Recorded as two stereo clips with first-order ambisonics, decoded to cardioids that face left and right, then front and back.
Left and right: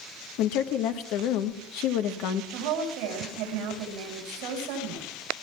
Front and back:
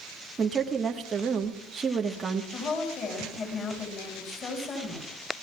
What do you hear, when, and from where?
0.4 s a woman speaking: 110° left, 1.4 m
2.5 s a woman speaking: 65° right, 7.5 m